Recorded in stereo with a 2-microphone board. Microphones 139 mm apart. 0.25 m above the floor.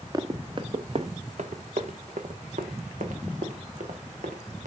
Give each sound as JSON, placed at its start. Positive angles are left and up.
{"t": 0.1, "sound": "running footsteps", "side_deg": -30, "distance_m": 1.1}